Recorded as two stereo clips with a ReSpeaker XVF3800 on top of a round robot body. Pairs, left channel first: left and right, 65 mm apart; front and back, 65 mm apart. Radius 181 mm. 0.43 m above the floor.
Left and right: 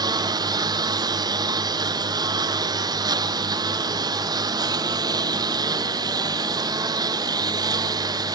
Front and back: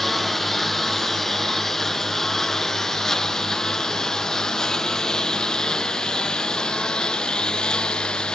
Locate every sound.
0.0 s a lawn mower: 85° right; by 8.3 s 75° right